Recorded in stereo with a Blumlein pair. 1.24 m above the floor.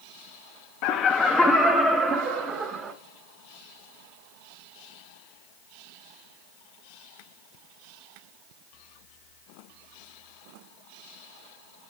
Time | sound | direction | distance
0.8 | laughter | 45° left | 0.6 m